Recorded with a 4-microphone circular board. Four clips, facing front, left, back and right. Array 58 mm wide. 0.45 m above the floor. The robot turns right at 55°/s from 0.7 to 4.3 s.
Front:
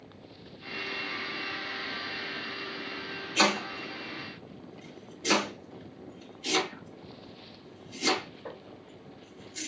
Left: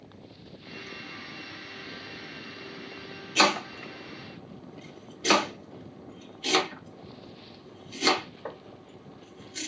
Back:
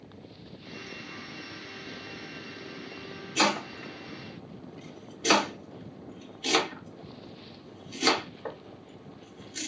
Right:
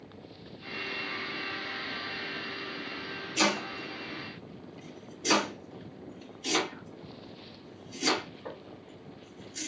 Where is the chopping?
75° left, 2.5 m; by 9.7 s 130° left, 2.5 m.